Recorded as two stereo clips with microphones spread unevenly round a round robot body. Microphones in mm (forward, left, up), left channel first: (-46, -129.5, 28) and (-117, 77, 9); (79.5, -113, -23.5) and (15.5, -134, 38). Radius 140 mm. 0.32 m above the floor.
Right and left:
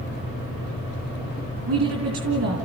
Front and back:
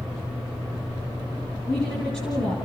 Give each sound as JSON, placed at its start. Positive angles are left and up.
{"t": 1.7, "sound": "a woman speaking", "azimuth_deg": 85, "distance_m": 3.5}